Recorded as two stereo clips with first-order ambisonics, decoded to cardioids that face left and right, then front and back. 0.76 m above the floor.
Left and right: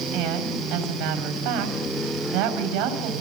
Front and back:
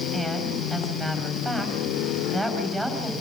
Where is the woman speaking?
105° right, 5 m.